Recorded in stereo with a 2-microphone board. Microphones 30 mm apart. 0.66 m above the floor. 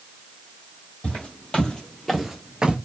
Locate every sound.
1.0 s footsteps: 40° left (ahead or behind), 1.6 m; by 2.8 s 35° right (ahead or behind), 0.8 m